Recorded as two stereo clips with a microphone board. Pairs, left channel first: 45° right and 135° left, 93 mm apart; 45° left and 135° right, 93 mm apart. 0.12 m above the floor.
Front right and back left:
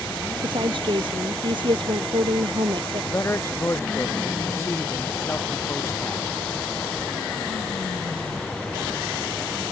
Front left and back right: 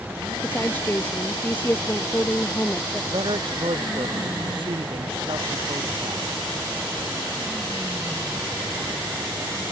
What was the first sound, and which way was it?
A woman speaking, 115° left.